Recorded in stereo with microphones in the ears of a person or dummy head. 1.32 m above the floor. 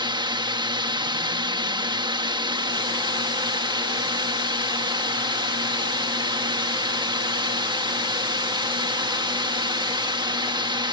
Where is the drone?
25° right (ahead or behind).